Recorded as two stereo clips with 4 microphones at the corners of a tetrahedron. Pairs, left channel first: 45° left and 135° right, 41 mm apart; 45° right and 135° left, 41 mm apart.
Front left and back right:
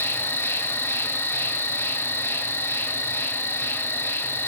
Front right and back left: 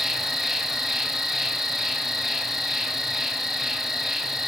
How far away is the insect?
About 1.0 m.